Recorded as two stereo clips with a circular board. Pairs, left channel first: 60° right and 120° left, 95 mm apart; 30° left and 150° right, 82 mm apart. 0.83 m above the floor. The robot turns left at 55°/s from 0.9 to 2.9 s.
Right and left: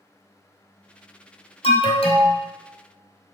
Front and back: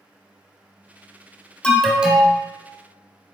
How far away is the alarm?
About 0.9 m.